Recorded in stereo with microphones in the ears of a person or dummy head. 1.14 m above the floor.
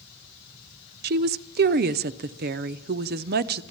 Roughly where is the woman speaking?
Right.